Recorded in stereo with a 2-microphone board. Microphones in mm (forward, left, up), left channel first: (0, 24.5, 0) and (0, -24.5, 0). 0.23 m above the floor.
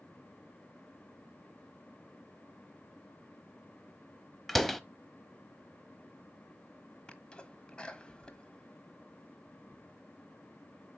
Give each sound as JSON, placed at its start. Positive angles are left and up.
{"t": 4.5, "sound": "a door slam", "side_deg": 5, "distance_m": 0.7}
{"t": 7.1, "sound": "a sneeze", "side_deg": 20, "distance_m": 1.2}